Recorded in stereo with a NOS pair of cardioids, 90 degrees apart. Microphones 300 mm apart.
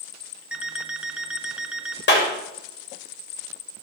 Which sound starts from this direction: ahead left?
A clap, at 2.1 s.